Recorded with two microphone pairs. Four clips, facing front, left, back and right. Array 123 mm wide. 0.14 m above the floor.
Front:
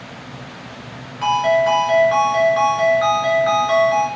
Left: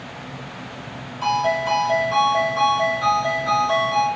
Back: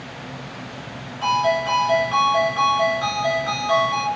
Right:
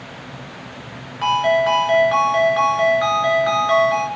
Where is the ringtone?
65° right, 0.8 m.